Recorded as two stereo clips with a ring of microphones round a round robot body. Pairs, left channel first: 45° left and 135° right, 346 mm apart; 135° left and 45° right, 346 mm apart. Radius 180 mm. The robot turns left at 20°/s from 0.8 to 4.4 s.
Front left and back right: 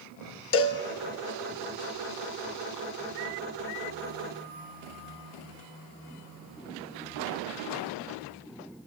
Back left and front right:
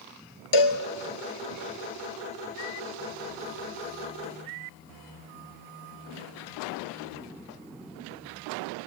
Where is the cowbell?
100° left, 1.3 m.